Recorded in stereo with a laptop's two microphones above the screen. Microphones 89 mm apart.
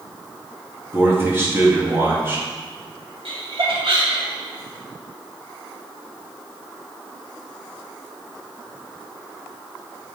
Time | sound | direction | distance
0.9 | a man speaking | 25° right (ahead or behind) | 1.6 m
3.2 | laughter | 75° right (ahead or behind) | 2 m